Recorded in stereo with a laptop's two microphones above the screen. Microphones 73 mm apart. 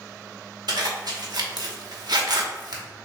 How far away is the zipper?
About 1.1 m.